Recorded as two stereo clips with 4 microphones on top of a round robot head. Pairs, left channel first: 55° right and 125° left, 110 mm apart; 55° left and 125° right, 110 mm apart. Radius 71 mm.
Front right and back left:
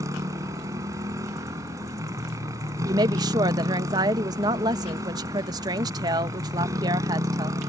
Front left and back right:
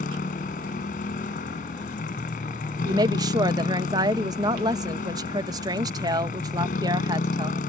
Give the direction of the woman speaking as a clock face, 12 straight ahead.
6 o'clock.